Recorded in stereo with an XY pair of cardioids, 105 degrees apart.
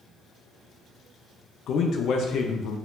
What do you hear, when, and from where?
1.7 s a man speaking: 70° left, 0.6 m